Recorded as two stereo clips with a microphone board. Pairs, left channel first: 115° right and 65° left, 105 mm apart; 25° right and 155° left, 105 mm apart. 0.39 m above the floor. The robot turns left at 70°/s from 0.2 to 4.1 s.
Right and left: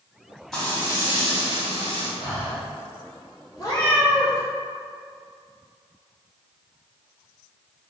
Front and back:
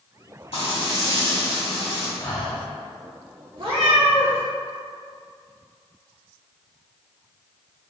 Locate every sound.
0.5 s frying: 25° right, 1.5 m; by 2.1 s 135° right, 1.5 m
2.2 s breathing: 90° right, 1.0 m; by 2.6 s 120° right, 1.0 m
3.6 s a cat meowing: 170° right, 1.6 m; by 4.4 s 155° left, 1.6 m